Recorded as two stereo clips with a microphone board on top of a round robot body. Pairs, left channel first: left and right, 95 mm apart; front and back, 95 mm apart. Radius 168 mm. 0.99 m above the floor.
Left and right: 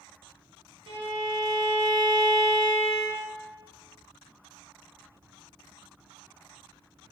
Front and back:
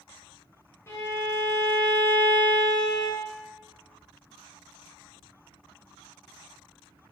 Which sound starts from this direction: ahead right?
A violin, at 0.9 s.